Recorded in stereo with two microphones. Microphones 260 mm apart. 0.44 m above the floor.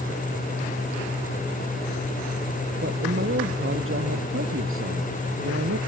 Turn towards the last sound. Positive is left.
turn(degrees=-55)  # may be behind; listen again after turning